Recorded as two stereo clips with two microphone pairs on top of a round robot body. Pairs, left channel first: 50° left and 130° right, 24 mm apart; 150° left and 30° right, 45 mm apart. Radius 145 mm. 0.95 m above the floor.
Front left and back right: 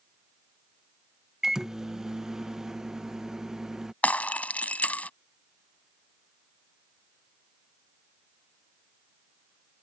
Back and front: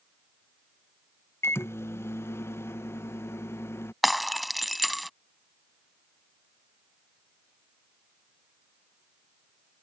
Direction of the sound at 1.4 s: 165° left.